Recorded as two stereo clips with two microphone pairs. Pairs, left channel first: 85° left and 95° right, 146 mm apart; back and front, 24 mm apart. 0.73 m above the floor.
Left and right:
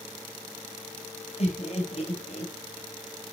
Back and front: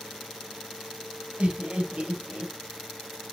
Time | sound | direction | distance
1.4 | laughter | 45° left | 3.5 m